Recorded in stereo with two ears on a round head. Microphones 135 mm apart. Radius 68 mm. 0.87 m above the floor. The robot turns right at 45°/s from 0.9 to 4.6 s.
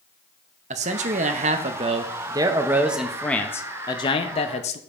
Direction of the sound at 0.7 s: 100° right.